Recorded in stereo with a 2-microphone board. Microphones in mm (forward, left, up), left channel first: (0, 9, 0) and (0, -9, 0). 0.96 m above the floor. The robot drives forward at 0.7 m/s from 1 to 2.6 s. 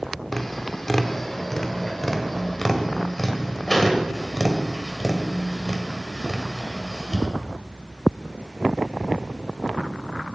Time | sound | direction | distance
0.3 | tapping | 20° left (ahead or behind) | 1.4 m